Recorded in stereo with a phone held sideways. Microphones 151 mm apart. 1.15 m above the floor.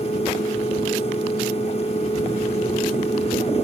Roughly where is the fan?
Left.